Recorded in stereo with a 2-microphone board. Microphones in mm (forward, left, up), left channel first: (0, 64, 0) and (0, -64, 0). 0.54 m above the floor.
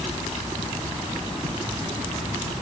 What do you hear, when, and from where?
Only background noise.